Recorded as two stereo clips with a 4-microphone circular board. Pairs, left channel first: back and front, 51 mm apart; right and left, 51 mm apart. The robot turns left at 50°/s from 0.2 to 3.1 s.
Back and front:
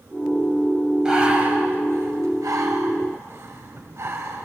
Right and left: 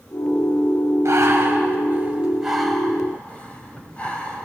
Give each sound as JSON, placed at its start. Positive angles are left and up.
{"t": 1.1, "sound": "breathing", "azimuth_deg": 75, "distance_m": 4.0}